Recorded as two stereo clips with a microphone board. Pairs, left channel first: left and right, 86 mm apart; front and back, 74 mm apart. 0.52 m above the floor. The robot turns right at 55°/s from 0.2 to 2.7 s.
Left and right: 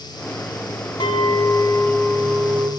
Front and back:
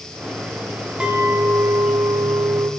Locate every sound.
1.0 s a clink: 105° left, 3.5 m; by 2.7 s 160° right, 3.5 m